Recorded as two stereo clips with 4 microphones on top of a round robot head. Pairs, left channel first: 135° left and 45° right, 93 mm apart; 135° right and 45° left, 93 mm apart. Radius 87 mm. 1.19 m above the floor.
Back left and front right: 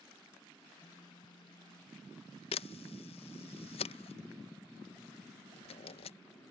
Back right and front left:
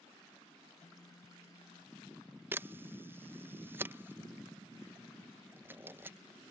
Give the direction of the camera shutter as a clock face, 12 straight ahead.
8 o'clock.